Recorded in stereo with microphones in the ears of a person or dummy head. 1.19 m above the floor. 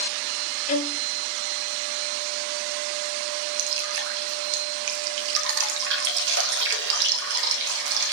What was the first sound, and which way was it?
A violin, 40° left (ahead or behind).